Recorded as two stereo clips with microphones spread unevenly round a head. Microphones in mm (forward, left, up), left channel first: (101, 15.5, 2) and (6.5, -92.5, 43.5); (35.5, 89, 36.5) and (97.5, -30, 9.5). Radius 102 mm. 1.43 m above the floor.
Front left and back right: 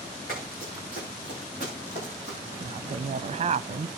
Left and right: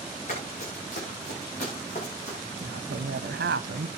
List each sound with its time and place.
0.3 s running footsteps: 95° left, 8 m; by 2.4 s 85° left, 7 m
2.6 s a woman speaking: 90° right, 0.6 m